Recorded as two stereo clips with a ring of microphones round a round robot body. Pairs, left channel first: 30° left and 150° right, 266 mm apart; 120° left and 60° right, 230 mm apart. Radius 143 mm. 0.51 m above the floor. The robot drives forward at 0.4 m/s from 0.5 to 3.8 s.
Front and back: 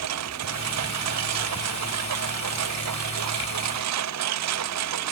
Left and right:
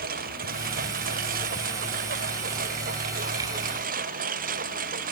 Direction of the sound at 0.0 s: 120° right.